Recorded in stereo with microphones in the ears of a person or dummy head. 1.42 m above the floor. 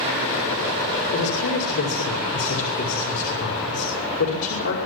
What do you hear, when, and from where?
1.1 s a man speaking: 75° left (ahead or behind), 4.5 m